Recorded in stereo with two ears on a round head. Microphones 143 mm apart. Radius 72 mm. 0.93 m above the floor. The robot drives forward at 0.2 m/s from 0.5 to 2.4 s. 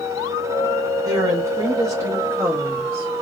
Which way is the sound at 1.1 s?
25° right (ahead or behind).